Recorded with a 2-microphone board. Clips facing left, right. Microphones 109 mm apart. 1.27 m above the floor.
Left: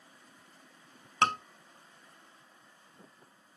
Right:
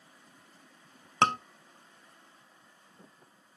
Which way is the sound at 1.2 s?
25° right (ahead or behind).